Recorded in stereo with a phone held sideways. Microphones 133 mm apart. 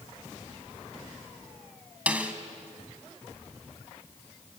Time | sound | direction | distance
2.1 | a snare drum | 10° right (ahead or behind) | 1.7 m